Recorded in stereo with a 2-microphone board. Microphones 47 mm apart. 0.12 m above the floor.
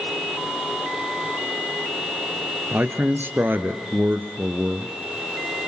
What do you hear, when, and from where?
2.7 s a man speaking: 45° right (ahead or behind), 1.9 m